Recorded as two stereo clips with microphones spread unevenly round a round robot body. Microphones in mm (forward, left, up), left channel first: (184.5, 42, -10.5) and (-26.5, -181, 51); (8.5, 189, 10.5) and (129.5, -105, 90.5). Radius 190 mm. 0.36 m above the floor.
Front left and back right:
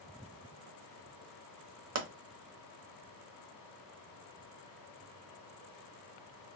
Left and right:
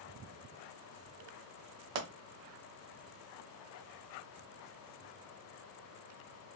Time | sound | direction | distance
1.9 | a pop | 85° right | 0.9 m